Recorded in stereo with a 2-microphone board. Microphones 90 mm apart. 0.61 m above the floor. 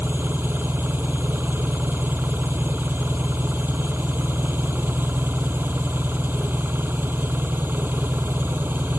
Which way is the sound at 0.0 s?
25° right (ahead or behind).